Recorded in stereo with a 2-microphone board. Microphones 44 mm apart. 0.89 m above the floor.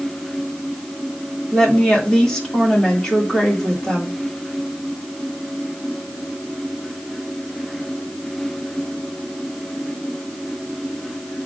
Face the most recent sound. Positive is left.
turn(degrees=10)  # may be behind; listen again after turning